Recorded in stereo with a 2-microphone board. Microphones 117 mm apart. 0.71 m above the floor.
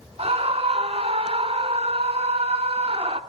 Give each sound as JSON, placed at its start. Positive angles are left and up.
{"t": 0.2, "sound": "a scream", "side_deg": -60, "distance_m": 1.6}